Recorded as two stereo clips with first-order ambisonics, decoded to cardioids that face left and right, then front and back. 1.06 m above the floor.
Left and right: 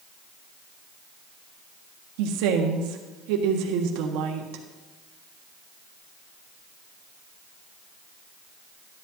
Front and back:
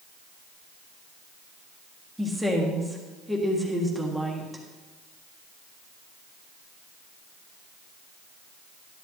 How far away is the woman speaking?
About 1.5 m.